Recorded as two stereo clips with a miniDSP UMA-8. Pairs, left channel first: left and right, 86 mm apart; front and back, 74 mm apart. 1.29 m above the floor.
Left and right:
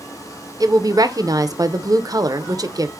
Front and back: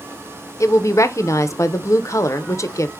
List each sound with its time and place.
0.6 s a woman speaking: 45° right, 0.5 m